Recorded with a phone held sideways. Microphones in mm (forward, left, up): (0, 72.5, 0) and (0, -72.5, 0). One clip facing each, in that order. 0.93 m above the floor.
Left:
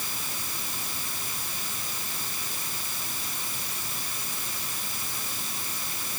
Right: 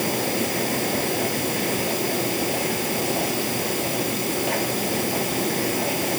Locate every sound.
0.0 s a machine running: 75° right (ahead or behind)